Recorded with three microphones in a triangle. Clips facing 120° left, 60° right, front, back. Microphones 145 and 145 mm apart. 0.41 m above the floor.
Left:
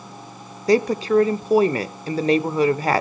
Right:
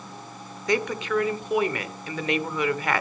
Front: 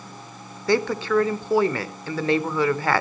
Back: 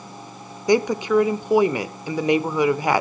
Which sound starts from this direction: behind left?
A woman speaking, at 0.7 s.